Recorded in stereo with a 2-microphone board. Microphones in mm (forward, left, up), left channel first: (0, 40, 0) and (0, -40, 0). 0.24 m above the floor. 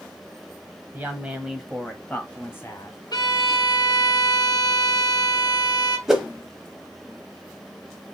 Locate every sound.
0.9 s a woman speaking: 25° right (ahead or behind), 1.1 m; by 3.0 s 40° left (ahead or behind), 1.4 m
3.1 s a violin: 55° left (ahead or behind), 0.9 m
6.1 s a whoosh: 5° right (ahead or behind), 1.0 m